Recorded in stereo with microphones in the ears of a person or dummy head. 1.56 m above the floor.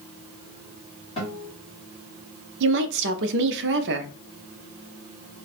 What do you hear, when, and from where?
1.2 s a guitar: 25° left (ahead or behind), 1.7 m
2.6 s a woman speaking: 60° right (ahead or behind), 0.5 m